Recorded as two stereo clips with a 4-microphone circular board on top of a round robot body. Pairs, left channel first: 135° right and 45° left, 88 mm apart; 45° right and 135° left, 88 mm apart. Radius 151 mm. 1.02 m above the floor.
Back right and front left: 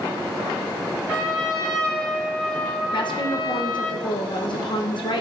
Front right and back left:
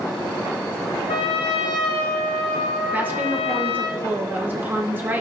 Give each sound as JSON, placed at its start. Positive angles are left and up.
{"t": 1.1, "sound": "a trumpet", "azimuth_deg": -55, "distance_m": 0.6}
{"t": 2.9, "sound": "a woman speaking", "azimuth_deg": -155, "distance_m": 0.8}